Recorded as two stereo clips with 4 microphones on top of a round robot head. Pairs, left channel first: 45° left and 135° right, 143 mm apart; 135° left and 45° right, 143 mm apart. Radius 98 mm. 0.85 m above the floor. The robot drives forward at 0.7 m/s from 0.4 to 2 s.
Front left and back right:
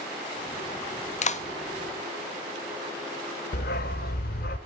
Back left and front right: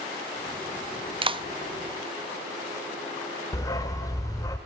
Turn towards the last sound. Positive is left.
turn(degrees=70)